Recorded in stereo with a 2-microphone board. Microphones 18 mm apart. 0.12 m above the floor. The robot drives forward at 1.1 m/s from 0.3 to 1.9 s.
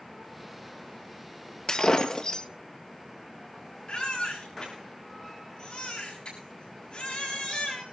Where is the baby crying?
50° left (ahead or behind), 7 m.